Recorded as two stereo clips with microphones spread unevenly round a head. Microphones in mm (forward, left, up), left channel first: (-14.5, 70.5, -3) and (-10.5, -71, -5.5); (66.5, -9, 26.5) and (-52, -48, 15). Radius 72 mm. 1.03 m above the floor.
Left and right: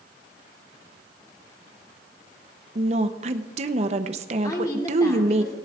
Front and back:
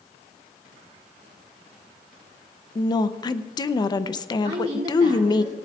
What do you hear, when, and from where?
2.8 s a woman speaking: 40° right, 0.6 m
4.4 s a woman speaking: 155° left, 2.5 m